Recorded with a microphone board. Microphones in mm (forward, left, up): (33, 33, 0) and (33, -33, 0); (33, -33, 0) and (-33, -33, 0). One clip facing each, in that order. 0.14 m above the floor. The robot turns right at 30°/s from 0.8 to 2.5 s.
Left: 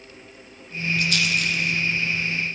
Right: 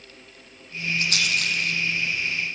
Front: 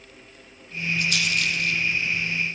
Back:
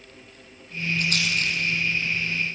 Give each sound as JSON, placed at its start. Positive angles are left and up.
{"t": 1.0, "sound": "a rattle", "azimuth_deg": -140, "distance_m": 5.5}